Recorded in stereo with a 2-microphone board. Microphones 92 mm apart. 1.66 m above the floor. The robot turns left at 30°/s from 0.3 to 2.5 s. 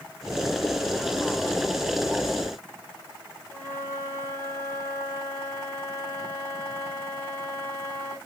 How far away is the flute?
About 1.5 m.